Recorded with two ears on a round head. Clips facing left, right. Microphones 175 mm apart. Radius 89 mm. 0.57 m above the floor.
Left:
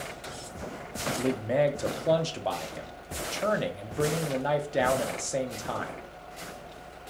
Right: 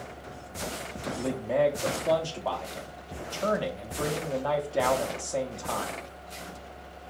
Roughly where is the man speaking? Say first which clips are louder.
Even; centre.